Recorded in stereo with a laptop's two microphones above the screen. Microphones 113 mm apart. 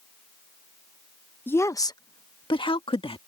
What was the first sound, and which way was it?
A woman speaking, 15° left (ahead or behind).